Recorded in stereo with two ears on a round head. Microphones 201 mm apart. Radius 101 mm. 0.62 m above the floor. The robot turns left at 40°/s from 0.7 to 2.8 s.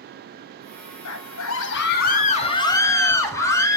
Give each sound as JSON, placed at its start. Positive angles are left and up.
{"t": 1.1, "sound": "a scream", "azimuth_deg": 85, "distance_m": 5.0}